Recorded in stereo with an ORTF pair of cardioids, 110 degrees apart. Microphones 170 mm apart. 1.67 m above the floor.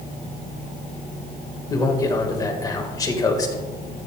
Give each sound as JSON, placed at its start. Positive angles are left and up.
{"t": 1.7, "sound": "a man speaking", "azimuth_deg": 20, "distance_m": 1.7}